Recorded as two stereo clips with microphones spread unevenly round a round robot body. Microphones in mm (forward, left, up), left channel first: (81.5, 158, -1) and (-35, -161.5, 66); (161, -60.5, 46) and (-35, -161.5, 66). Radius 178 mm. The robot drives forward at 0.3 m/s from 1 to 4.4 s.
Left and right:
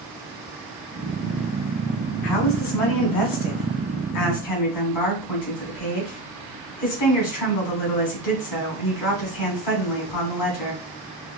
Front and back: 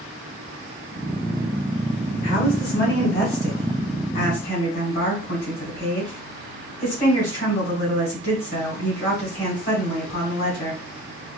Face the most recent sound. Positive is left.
turn(degrees=90)